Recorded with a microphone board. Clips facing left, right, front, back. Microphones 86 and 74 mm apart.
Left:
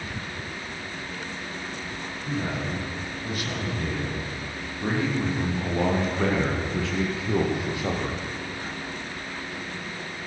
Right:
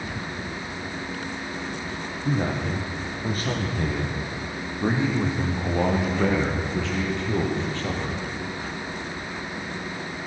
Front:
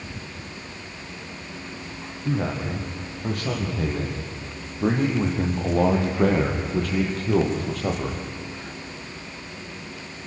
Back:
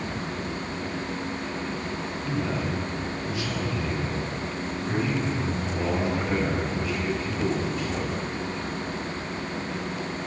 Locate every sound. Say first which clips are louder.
2.2 s a man speaking: right 4 dB, front 3 dB; 45° right, 9.5 m; by 8.2 s 15° left, 7.5 m